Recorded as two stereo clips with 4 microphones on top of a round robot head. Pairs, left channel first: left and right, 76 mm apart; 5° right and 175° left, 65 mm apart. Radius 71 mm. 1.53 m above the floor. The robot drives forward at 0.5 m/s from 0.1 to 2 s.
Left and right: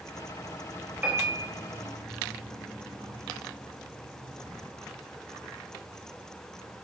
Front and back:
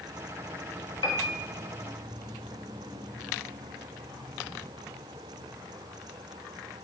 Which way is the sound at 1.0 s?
20° right.